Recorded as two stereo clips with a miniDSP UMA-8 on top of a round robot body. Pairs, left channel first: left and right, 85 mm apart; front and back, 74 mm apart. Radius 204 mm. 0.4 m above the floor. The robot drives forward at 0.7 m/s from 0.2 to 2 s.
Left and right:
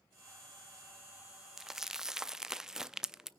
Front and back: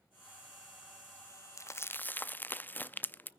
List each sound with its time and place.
1.6 s crumpling: 5° right, 1.0 m; by 3.3 s 15° right, 0.8 m